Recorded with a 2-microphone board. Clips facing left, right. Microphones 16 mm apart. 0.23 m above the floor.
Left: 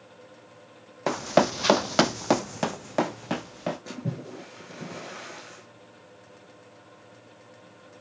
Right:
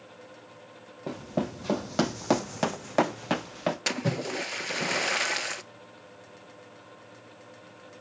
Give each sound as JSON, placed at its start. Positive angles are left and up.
{"t": 1.1, "sound": "running footsteps", "side_deg": 70, "distance_m": 0.9}
{"t": 3.9, "sound": "a splash", "side_deg": -85, "distance_m": 0.7}